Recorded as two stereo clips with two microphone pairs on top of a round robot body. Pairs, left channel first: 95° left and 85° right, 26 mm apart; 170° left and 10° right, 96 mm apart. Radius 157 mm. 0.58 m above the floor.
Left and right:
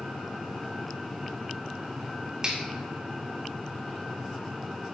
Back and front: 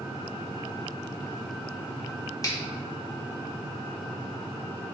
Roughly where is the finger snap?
Behind right.